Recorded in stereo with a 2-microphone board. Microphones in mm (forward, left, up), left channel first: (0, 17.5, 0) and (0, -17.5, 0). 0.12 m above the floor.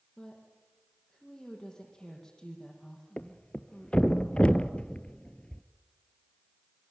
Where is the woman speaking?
20° left (ahead or behind), 6 m.